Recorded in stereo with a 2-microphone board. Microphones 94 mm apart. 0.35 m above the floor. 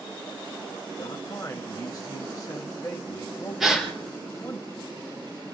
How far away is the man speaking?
About 1.6 m.